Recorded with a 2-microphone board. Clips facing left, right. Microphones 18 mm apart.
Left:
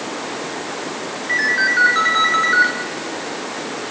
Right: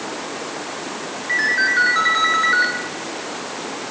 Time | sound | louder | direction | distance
1.3 | a ringtone | left 1 dB | centre (ahead or behind) | 2.5 m